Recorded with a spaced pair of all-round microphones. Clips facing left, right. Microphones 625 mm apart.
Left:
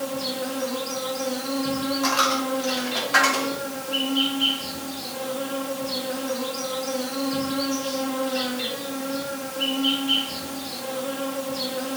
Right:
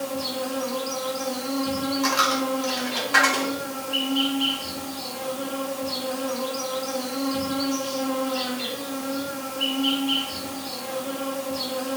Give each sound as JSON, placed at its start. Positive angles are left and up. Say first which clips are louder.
{"t": 0.0, "sound": "an insect", "louder": "even", "side_deg": 50, "distance_m": 0.8}
{"t": 2.0, "sound": "a dropped coin", "louder": "even", "side_deg": 15, "distance_m": 0.7}